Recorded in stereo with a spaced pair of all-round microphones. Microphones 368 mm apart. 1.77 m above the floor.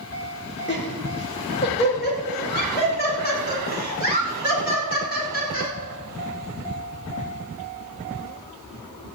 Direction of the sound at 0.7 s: 30° left (ahead or behind).